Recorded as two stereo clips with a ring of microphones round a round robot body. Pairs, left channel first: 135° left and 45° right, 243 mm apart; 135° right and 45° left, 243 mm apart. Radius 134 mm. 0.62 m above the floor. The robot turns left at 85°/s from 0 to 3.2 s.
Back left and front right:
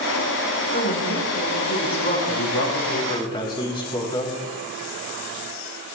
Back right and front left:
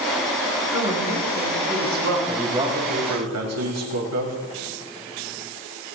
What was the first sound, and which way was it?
A woman speaking, 160° right.